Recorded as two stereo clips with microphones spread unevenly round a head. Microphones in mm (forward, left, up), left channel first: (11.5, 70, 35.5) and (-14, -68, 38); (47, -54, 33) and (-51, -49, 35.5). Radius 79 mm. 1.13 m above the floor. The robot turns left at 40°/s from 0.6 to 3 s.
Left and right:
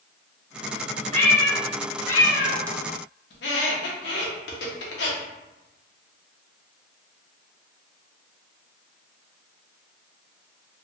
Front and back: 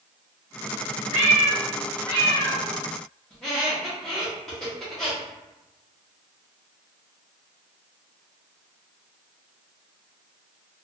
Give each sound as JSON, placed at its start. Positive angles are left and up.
{"t": 1.1, "sound": "a cat meowing", "azimuth_deg": 140, "distance_m": 1.7}
{"t": 3.3, "sound": "a squeak", "azimuth_deg": 80, "distance_m": 0.8}